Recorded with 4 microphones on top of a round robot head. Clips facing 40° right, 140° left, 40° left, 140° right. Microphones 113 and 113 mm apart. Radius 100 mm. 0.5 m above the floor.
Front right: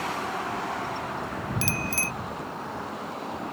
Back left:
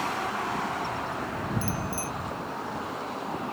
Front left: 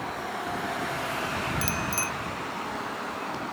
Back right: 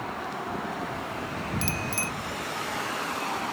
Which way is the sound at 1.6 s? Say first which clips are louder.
Even, front left 1 dB; 45° right.